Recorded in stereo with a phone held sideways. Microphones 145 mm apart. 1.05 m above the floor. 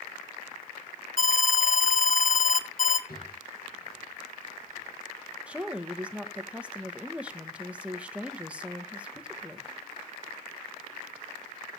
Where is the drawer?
80° left, 5.5 m.